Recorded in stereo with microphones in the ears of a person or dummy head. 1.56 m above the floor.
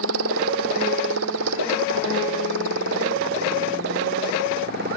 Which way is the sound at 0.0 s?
75° right (ahead or behind).